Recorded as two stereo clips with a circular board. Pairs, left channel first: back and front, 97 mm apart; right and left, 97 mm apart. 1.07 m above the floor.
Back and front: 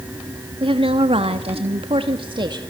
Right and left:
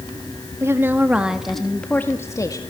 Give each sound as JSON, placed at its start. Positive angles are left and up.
{"t": 0.6, "sound": "a woman speaking", "azimuth_deg": 30, "distance_m": 2.0}